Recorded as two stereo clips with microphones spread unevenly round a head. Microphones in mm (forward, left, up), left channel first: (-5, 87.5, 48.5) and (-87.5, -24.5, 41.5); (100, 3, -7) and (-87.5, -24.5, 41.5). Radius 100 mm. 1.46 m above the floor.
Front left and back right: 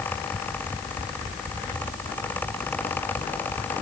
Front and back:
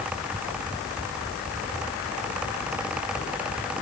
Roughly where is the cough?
No cough in this recording.